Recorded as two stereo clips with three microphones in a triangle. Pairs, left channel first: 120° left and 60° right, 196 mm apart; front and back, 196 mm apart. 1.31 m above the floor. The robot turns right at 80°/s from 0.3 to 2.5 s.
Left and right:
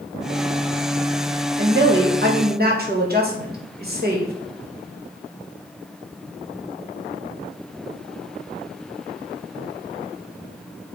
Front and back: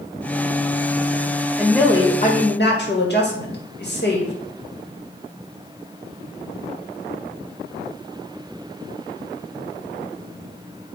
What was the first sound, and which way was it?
A woman speaking, 100° right.